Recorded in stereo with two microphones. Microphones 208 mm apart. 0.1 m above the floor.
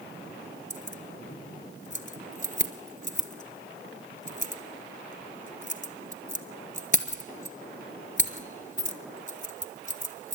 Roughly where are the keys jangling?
Left.